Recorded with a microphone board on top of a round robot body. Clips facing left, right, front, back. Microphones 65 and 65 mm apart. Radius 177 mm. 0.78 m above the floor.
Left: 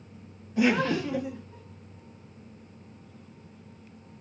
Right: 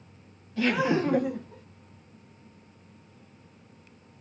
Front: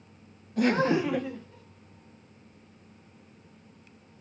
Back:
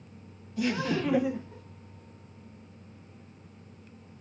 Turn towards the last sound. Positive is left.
turn(degrees=-120)